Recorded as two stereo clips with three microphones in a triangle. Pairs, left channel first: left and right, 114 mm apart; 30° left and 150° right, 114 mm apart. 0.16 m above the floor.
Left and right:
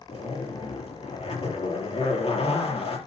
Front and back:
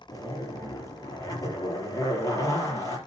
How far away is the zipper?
About 4 m.